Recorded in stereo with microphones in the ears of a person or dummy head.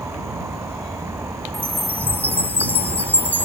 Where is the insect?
10° right (ahead or behind).